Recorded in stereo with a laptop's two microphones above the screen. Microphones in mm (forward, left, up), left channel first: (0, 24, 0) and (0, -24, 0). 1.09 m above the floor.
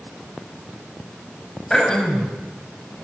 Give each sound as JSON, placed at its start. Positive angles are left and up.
{"t": 1.7, "sound": "throat clearing", "side_deg": 15, "distance_m": 5.5}